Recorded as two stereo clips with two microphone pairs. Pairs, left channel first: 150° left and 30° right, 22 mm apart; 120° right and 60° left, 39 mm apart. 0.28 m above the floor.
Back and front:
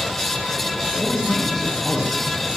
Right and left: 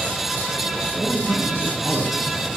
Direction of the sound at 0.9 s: 80° left.